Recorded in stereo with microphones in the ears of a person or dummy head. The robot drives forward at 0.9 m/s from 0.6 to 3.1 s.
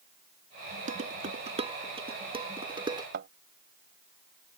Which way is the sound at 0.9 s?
45° right (ahead or behind).